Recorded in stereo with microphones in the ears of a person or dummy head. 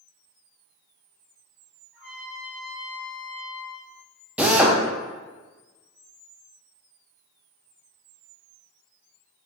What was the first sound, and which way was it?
A trumpet, 5° right (ahead or behind).